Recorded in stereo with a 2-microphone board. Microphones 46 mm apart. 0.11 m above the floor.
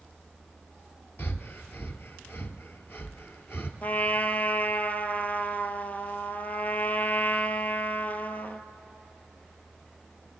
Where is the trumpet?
40° left (ahead or behind), 0.6 m.